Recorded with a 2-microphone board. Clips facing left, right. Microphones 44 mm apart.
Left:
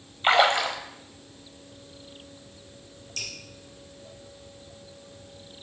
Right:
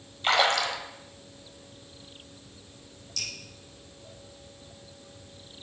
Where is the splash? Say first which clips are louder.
Left 3 dB; 25° left (ahead or behind), 1.0 m.